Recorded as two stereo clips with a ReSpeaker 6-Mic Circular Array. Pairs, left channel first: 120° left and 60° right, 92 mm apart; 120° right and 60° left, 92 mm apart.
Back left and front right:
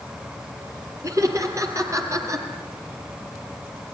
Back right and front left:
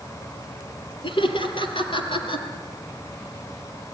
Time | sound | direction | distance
1.0 | laughter | 110° right | 5 m